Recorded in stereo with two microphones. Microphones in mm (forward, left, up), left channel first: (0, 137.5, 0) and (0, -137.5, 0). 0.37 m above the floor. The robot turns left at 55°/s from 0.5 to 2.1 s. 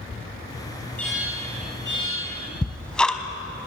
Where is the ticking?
5° left (ahead or behind), 1.3 m.